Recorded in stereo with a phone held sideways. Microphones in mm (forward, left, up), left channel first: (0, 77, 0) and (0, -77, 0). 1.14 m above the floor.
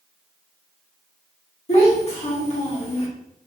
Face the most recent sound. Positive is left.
turn(degrees=45)  # may be behind; listen again after turning